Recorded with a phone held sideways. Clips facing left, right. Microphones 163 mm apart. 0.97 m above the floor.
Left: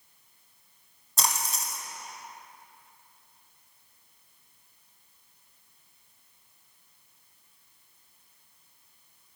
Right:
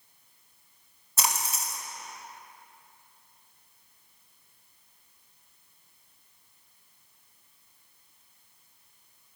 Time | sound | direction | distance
1.2 | a splash | 5° right (ahead or behind) | 1.0 m